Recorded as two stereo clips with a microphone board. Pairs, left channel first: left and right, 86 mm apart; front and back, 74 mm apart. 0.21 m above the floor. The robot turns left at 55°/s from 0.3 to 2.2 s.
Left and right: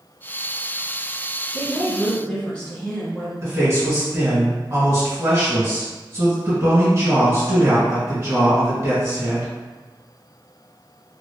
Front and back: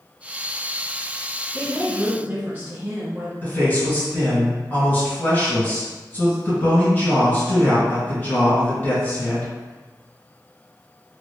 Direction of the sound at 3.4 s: 55° right.